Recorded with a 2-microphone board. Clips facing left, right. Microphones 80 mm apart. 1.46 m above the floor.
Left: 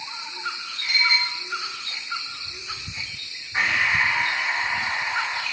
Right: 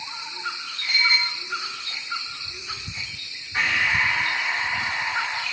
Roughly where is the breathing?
Centre.